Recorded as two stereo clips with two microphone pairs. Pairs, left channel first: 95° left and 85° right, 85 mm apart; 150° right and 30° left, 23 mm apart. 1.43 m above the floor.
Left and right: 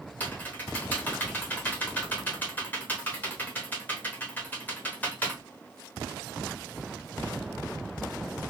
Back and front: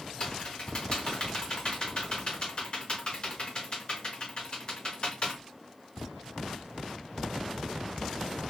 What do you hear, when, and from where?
0.2 s typing on a keyboard: 165° left, 0.8 m